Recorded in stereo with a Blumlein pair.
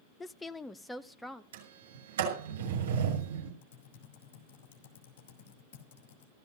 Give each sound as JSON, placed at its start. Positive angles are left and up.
{"t": 0.2, "sound": "a woman speaking", "azimuth_deg": 15, "distance_m": 0.5}
{"t": 1.5, "sound": "a sliding door", "azimuth_deg": -60, "distance_m": 6.0}
{"t": 3.6, "sound": "typing on a keyboard", "azimuth_deg": 50, "distance_m": 3.0}